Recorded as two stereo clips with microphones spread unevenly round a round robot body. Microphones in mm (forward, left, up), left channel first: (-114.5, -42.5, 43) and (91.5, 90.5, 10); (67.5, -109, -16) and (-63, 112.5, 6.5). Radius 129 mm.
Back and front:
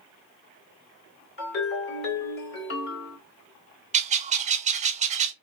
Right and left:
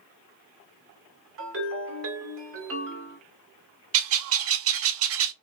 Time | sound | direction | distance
1.4 | a ringtone | 160° left | 2.5 m
3.9 | a bird | 100° left | 0.5 m